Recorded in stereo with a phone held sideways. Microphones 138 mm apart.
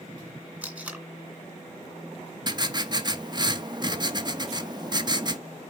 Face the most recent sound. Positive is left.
turn(degrees=-30)  # may be behind; listen again after turning